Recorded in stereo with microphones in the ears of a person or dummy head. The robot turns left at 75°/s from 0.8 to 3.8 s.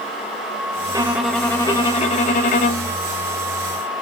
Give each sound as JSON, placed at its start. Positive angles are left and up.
{"t": 0.9, "sound": "a violin", "azimuth_deg": -145, "distance_m": 0.6}